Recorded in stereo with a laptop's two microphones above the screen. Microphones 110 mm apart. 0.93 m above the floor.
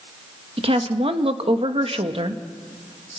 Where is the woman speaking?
60° right (ahead or behind), 1.3 m.